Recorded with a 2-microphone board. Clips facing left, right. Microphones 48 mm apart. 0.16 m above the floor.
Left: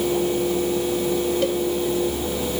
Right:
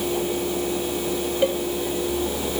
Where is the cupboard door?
No cupboard door in this recording.